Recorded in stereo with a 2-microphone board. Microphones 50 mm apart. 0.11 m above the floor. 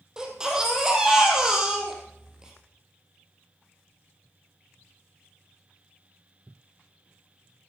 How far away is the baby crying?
About 3 m.